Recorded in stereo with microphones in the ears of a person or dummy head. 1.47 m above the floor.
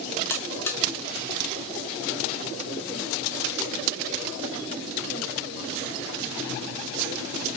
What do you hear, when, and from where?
0.3 s a buzzer: 10° left (ahead or behind), 0.6 m